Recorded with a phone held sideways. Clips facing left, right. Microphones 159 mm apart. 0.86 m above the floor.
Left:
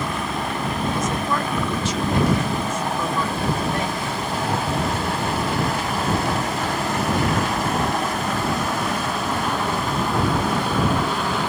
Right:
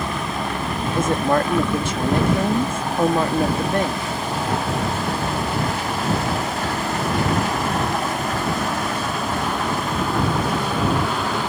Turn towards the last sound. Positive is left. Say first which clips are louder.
# right 5 dB
turn(degrees=-55)  # may be behind; listen again after turning